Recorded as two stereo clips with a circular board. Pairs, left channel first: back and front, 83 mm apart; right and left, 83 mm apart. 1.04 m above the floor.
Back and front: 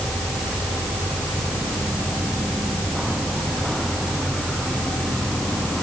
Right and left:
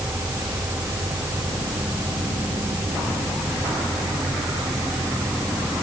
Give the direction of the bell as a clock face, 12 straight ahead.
I don't hear a bell.